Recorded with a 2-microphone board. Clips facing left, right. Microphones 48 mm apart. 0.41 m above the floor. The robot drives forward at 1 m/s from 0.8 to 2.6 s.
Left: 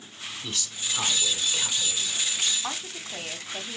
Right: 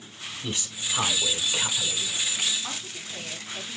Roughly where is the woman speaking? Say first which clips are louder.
Left 2 dB; left.